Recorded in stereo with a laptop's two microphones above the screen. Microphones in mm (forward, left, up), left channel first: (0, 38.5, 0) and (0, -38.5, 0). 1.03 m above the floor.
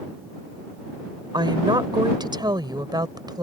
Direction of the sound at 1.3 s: 80° right.